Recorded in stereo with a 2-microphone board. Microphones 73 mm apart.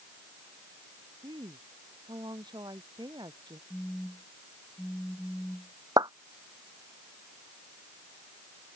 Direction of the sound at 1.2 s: 85° right.